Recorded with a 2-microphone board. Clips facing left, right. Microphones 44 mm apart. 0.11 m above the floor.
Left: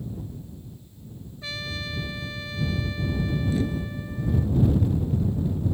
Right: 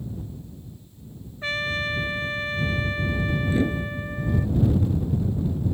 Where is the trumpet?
45° right (ahead or behind).